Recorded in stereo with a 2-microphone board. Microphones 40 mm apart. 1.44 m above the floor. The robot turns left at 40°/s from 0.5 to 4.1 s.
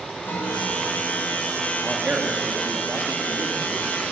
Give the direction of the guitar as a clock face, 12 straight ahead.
8 o'clock.